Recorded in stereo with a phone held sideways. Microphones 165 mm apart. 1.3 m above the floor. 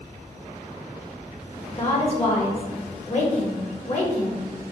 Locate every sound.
1.7 s a woman speaking: 40° left (ahead or behind), 2 m